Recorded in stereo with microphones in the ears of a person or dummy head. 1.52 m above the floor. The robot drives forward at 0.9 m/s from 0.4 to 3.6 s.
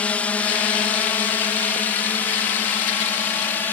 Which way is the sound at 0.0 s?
5° left (ahead or behind).